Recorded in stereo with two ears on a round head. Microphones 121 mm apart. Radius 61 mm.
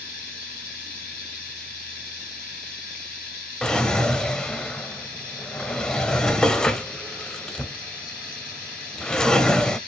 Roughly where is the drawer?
Centre.